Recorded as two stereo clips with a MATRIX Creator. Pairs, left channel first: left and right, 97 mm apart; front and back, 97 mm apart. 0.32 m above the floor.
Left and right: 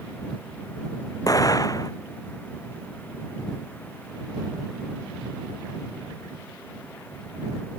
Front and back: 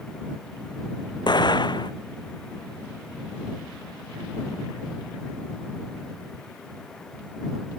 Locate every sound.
1.3 s an explosion: 40° left